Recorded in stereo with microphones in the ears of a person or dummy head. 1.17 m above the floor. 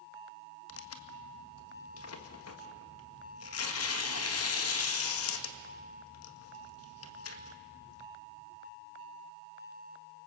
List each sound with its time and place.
0.7 s tearing paper: 75° left (ahead or behind), 1.8 m